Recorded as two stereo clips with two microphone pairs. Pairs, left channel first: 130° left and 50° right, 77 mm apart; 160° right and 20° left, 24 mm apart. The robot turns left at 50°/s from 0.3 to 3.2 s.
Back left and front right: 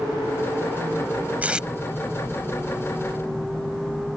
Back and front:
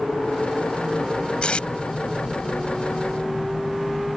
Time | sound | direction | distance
1.4 | tape being pulled | 115° right | ?